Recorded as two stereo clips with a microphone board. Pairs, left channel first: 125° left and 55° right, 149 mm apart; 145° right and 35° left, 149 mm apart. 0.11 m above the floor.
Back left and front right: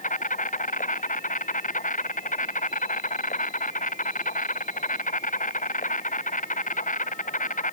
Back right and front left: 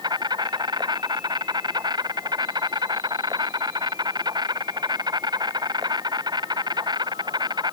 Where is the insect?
95° left.